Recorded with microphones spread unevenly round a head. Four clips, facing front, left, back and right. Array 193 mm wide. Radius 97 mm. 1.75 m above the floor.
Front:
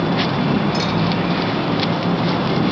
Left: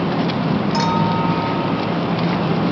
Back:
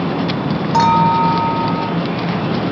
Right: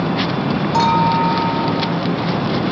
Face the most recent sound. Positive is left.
turn(degrees=-150)